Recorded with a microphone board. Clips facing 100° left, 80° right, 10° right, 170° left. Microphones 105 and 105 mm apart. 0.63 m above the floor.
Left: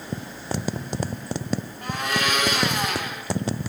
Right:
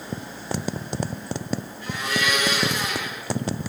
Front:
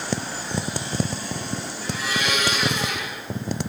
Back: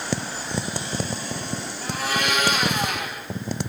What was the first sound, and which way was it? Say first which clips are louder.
A blender: left 1 dB, back 2 dB; 135° left.